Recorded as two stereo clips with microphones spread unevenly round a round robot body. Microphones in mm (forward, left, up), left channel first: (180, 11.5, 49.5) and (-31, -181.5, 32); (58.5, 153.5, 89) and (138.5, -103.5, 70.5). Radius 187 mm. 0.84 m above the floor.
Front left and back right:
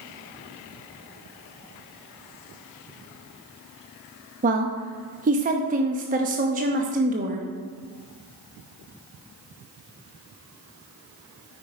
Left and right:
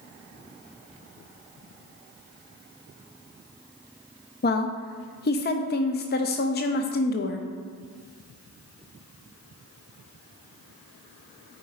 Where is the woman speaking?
160° left, 0.6 m.